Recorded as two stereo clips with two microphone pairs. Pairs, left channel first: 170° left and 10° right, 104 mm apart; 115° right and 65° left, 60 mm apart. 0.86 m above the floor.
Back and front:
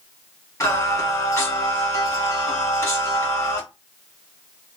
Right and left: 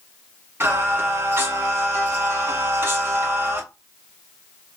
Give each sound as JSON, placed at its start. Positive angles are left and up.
{"t": 0.6, "sound": "singing", "azimuth_deg": 110, "distance_m": 1.5}